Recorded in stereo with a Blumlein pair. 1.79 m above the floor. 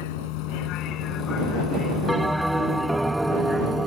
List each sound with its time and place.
0.0 s a vehicle: 50° left; by 3.9 s 10° right
2.1 s a bell: 5° right